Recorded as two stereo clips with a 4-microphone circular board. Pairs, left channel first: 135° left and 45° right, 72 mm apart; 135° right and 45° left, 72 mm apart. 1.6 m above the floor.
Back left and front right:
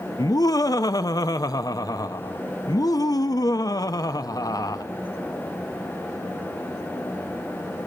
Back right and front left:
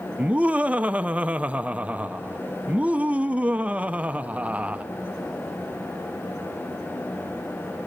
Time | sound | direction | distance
0.2 | laughter | 115° left | 0.7 m